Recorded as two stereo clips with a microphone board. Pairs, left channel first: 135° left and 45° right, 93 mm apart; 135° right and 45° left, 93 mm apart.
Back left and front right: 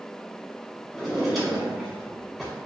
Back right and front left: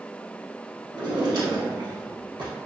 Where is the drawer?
45° left, 0.9 m.